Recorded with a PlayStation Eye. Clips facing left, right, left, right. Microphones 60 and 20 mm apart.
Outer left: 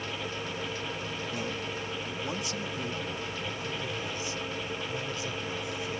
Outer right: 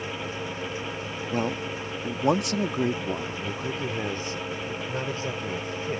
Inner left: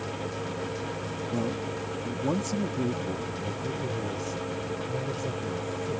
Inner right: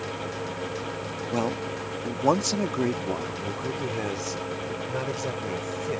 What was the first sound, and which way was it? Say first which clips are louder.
A man speaking: outer right 10 dB, inner right 4 dB; 45° right (ahead or behind).